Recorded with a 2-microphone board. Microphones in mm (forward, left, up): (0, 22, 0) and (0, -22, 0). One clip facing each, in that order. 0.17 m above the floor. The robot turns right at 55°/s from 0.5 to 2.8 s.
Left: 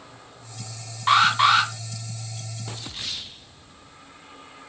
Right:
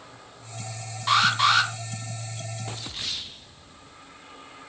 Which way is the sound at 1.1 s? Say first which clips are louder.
Left 3 dB; 25° left (ahead or behind).